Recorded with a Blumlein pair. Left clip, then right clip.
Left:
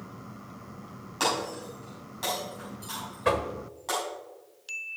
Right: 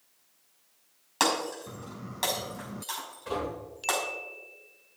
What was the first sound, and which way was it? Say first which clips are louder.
Breaking glass: right 1 dB; 70° right.